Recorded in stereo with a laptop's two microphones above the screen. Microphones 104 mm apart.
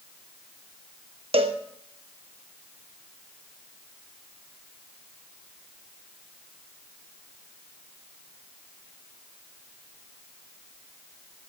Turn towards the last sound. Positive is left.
turn(degrees=-65)  # may be behind; listen again after turning